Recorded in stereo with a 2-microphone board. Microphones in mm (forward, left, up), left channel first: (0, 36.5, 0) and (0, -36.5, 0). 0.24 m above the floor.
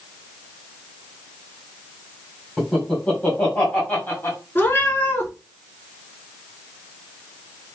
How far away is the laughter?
About 1.7 m.